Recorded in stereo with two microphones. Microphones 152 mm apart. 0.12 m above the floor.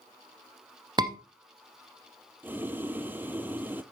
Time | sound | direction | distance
1.0 | a scream | 30° right (ahead or behind) | 1.3 m
2.4 | boiling | 10° right (ahead or behind) | 0.7 m